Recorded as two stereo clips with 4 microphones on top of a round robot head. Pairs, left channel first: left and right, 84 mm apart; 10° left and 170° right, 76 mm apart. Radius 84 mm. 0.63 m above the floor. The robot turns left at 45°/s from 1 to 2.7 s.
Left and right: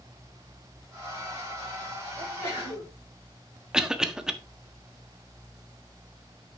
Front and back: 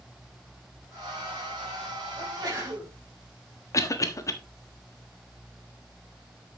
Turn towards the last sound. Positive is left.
turn(degrees=-10)